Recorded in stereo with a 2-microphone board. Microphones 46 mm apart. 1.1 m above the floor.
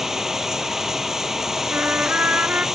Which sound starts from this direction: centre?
Running water, at 0.0 s.